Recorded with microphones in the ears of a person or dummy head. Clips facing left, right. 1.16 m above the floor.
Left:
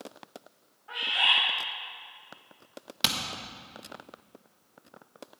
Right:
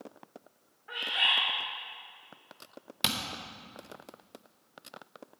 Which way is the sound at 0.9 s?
30° right (ahead or behind).